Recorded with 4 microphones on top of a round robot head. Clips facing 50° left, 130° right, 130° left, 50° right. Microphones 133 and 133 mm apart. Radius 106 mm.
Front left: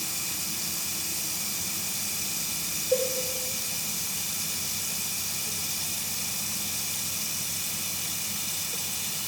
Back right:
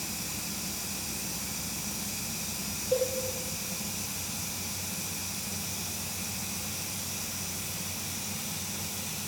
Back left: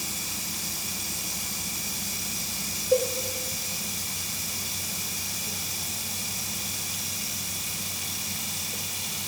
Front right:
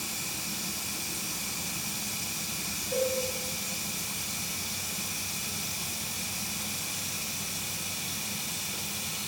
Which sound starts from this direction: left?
Running water, at 0.0 s.